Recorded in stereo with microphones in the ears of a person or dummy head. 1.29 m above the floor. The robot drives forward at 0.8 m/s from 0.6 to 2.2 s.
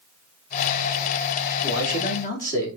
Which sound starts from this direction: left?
A man speaking, at 1.6 s.